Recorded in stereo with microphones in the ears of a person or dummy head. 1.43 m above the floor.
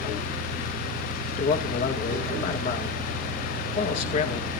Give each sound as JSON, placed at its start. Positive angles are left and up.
{"t": 0.0, "sound": "an engine running", "side_deg": -75, "distance_m": 9.5}
{"t": 1.3, "sound": "a man speaking", "side_deg": 40, "distance_m": 1.6}